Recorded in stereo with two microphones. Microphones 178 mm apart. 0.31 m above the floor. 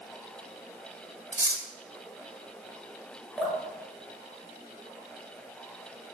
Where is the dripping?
Centre (ahead or behind), 1.1 m.